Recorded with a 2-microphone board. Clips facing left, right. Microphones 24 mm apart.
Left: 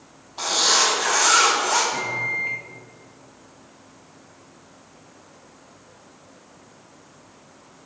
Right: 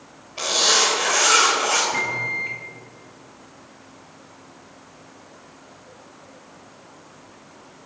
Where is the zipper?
85° right, 2.5 m.